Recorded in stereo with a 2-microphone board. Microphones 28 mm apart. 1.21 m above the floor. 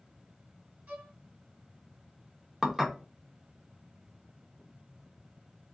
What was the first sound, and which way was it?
A violin, 70° right (ahead or behind).